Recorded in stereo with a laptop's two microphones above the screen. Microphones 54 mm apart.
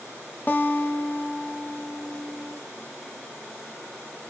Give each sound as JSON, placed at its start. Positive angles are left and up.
{"t": 0.5, "sound": "a guitar", "side_deg": 30, "distance_m": 0.5}